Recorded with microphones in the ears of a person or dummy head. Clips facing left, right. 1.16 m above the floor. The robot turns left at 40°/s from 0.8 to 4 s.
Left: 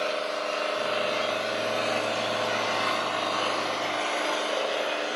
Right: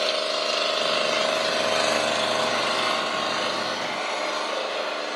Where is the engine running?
55° right, 0.8 m; by 5.2 s straight behind, 0.8 m.